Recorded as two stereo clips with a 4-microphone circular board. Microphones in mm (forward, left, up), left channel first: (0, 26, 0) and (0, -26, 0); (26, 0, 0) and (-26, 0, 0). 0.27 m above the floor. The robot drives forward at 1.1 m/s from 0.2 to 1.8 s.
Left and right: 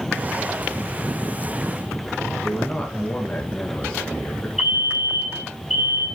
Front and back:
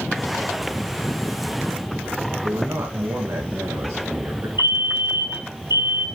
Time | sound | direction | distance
2.4 | a man speaking | 170° left | 3 m
4.6 | a fire alarm | 170° right | 4.5 m